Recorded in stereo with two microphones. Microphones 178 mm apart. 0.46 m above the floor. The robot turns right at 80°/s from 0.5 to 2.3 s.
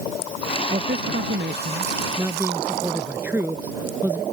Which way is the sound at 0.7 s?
140° right.